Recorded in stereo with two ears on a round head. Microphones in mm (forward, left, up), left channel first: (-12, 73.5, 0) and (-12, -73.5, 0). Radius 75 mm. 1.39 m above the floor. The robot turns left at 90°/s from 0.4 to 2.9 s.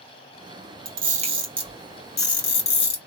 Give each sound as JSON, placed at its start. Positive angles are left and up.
{"t": 0.8, "sound": "a camera shutter", "side_deg": -75, "distance_m": 1.9}